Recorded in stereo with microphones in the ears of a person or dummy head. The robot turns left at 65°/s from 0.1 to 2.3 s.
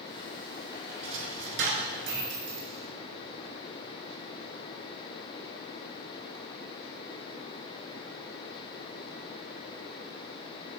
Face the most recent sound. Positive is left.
turn(degrees=-45)  # may be behind; listen again after turning